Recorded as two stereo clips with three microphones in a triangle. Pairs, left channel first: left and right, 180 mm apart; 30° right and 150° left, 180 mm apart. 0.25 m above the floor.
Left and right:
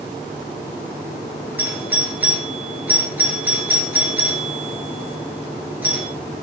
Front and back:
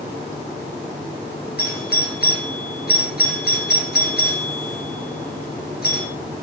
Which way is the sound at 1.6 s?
10° right.